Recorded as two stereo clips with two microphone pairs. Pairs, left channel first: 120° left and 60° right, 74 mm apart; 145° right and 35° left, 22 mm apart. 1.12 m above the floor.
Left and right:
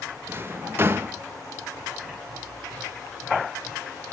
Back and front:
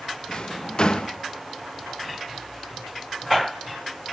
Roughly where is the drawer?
Right.